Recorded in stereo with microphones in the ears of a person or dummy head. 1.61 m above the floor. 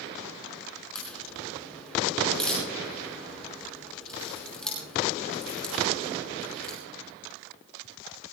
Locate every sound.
0.9 s a crack: centre (ahead or behind), 5 m